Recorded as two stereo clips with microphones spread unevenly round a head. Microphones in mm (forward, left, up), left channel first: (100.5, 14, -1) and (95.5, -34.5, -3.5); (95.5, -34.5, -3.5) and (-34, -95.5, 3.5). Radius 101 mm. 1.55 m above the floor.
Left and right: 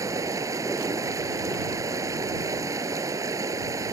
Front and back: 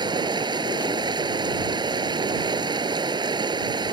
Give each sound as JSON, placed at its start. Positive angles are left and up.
{"t": 0.0, "sound": "running water", "azimuth_deg": -95}